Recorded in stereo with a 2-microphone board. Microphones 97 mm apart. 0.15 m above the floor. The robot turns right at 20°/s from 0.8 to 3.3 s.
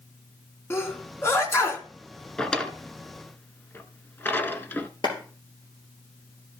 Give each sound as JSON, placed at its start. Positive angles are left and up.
{"t": 0.7, "sound": "a sneeze", "side_deg": 25, "distance_m": 1.8}
{"t": 2.4, "sound": "a drawer", "side_deg": 5, "distance_m": 0.8}
{"t": 5.0, "sound": "a clap", "side_deg": 50, "distance_m": 3.0}